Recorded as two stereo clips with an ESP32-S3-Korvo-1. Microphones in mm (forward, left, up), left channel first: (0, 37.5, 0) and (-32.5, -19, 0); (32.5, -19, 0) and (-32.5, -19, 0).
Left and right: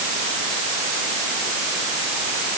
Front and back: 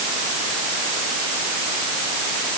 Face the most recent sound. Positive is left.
No sound to turn to.